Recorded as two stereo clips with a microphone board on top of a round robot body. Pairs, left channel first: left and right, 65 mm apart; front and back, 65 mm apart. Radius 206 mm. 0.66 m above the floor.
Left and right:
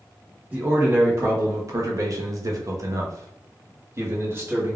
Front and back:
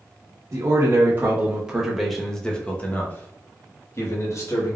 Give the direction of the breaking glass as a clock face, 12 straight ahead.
No breaking glass in this recording.